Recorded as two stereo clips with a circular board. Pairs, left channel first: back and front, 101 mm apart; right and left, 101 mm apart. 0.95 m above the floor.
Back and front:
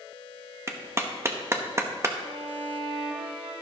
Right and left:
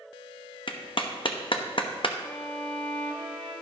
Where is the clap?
60° right, 0.9 m.